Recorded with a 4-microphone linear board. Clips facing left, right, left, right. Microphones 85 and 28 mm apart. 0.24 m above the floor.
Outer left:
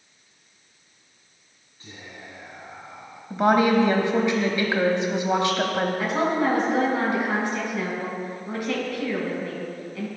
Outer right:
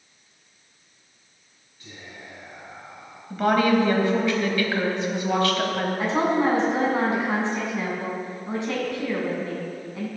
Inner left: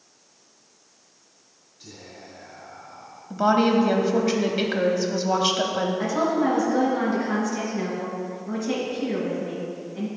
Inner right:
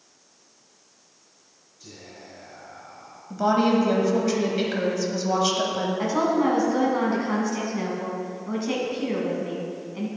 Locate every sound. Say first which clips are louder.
1.8 s whispering: even, inner left 1 dB; 20° left (ahead or behind), 2.5 m
3.3 s a woman speaking: outer left 1 dB, inner left 1 dB; 20° left (ahead or behind), 0.9 m
6.0 s a woman speaking: outer right 4 dB, inner right 2 dB; 30° right (ahead or behind), 2.5 m